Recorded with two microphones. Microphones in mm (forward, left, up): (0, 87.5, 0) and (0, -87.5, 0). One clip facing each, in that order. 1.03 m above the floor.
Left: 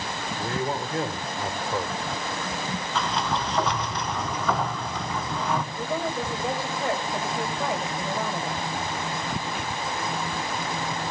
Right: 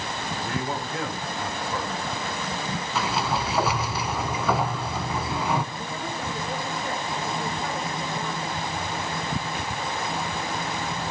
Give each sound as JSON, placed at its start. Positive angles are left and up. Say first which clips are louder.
{"t": 0.4, "sound": "a man speaking", "louder": "left 3 dB", "side_deg": 35, "distance_m": 3.0}
{"t": 3.0, "sound": "a sliding door", "louder": "right 1 dB", "side_deg": -5, "distance_m": 1.3}
{"t": 5.7, "sound": "a woman speaking", "louder": "left 4 dB", "side_deg": 85, "distance_m": 4.5}